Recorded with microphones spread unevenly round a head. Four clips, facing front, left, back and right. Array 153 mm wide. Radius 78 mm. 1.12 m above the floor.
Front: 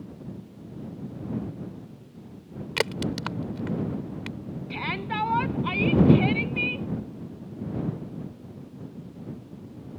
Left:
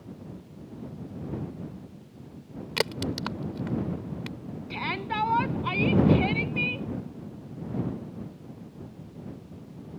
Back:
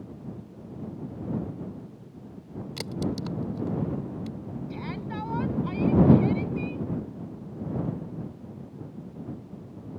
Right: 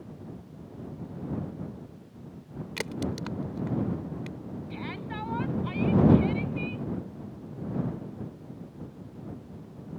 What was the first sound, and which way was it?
A crack, 30° left.